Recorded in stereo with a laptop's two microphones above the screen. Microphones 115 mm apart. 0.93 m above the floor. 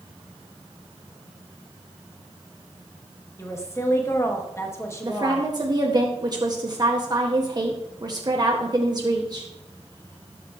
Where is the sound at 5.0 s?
35° right (ahead or behind), 1.6 m.